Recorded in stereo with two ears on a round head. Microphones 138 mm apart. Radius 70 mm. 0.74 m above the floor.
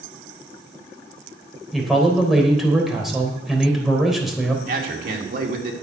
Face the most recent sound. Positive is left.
turn(degrees=-65)  # may be behind; listen again after turning